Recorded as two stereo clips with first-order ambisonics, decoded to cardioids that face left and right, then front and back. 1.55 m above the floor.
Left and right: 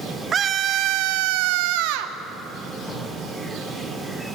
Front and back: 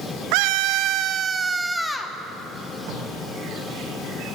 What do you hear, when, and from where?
0.3 s a scream: 160° right, 1.2 m; by 2.1 s 80° right, 1.4 m
2.9 s tape being pulled: 160° left, 9 m